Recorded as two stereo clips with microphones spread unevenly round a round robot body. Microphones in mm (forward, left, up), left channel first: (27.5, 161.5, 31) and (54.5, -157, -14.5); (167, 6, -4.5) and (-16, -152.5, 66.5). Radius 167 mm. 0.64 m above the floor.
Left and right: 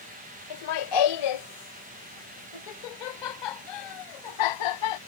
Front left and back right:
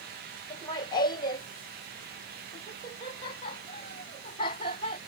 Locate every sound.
0.5 s laughter: 110° left